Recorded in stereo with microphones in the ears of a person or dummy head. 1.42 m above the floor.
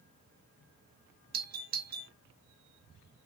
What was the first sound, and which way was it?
A doorbell, 45° right (ahead or behind).